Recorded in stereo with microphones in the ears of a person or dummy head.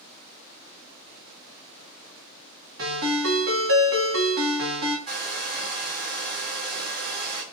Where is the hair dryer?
45° right (ahead or behind), 1.3 m.